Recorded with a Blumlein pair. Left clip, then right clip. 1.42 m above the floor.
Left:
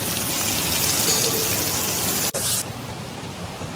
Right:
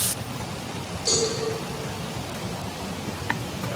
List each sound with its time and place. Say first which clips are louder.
1.1 s a cowbell: right 3 dB; 35° right, 0.9 m